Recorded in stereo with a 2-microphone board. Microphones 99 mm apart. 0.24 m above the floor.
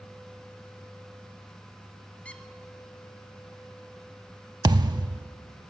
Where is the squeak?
10° left (ahead or behind), 1.2 m.